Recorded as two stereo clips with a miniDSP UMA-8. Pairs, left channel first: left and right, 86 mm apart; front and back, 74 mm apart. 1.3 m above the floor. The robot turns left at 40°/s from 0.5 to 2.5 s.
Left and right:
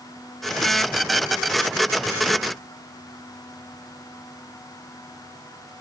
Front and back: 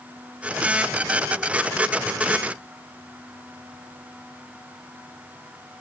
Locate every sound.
Only background noise.